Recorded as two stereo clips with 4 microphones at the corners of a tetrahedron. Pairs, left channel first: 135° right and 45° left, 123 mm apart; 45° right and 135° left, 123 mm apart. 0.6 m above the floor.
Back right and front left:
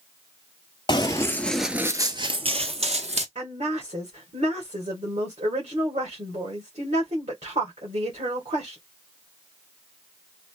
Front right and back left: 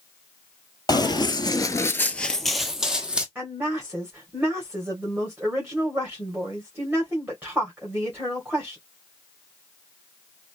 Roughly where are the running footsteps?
Right.